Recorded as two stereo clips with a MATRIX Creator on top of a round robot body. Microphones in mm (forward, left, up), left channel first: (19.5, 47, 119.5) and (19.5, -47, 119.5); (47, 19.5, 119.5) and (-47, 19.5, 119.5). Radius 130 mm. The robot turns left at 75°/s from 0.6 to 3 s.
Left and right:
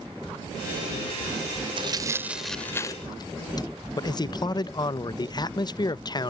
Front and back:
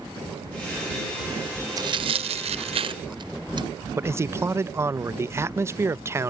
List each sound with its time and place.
1.8 s tearing paper: 125° right; by 3.7 s 140° left
4.0 s a man speaking: 120° left